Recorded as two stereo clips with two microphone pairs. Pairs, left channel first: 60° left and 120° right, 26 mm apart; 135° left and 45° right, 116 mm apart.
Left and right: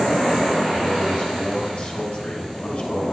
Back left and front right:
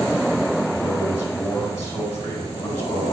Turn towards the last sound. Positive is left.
turn(degrees=65)